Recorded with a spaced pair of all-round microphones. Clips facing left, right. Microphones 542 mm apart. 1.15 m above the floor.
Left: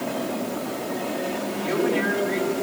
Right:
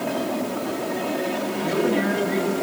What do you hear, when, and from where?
1.6 s a woman speaking: 55° right (ahead or behind), 6 m